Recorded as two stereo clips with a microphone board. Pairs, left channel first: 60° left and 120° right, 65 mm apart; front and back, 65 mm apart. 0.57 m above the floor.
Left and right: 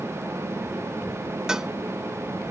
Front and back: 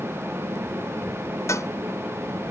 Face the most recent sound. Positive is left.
turn(degrees=-40)